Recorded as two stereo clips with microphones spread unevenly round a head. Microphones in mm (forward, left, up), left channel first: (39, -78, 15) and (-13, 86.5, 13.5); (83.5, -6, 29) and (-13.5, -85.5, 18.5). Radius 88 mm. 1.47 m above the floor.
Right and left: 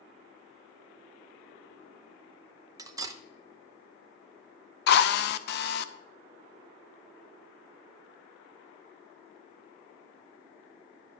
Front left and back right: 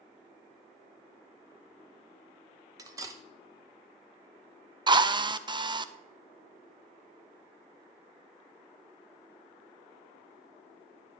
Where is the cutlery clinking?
160° left, 0.6 m.